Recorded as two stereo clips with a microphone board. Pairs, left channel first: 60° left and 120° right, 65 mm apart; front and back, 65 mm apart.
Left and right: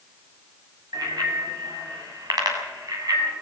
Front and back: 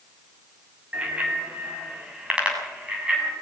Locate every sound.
0.9 s a bicycle bell: 110° right, 6.5 m; by 3.3 s 105° right, 8 m